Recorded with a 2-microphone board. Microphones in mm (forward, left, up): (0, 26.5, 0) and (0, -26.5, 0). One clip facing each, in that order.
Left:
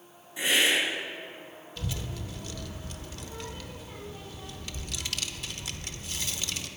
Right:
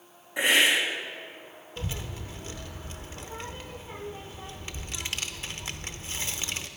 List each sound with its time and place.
0.4 s a hiss: 60° right (ahead or behind), 2.5 m
1.8 s a child speaking: 30° right (ahead or behind), 0.8 m